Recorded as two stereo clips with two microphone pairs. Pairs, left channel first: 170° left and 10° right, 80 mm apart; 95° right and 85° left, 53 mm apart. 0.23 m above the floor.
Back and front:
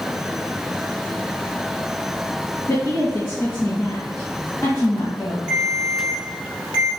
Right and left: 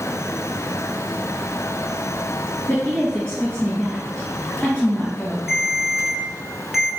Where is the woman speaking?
165° right, 2.0 m.